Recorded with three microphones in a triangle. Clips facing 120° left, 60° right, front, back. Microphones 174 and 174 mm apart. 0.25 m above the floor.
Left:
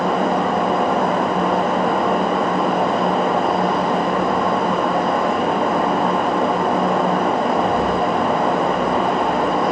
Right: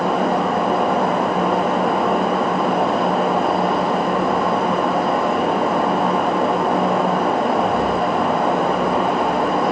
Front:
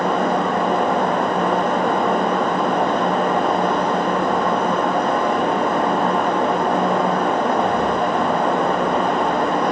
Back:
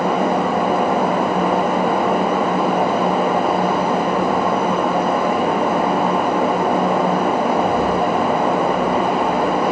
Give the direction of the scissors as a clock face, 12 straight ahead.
I don't hear scissors.